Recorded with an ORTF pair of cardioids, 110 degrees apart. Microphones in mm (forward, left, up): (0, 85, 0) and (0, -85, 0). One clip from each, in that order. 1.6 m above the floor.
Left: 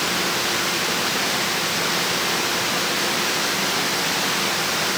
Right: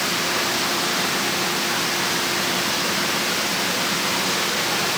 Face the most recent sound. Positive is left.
No sound to turn to.